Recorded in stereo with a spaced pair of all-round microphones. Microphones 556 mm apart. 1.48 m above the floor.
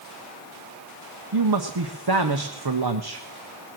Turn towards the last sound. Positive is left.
turn(degrees=-45)  # may be behind; listen again after turning